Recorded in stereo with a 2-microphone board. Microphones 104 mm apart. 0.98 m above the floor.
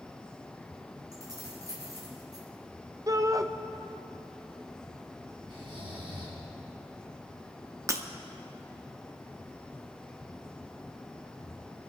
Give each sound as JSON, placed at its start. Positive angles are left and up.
{"t": 1.1, "sound": "keys jangling", "side_deg": -35, "distance_m": 3.5}
{"t": 3.1, "sound": "a shout", "side_deg": -30, "distance_m": 0.7}
{"t": 5.5, "sound": "snoring", "side_deg": -50, "distance_m": 3.5}
{"t": 7.9, "sound": "breaking glass", "side_deg": -30, "distance_m": 0.8}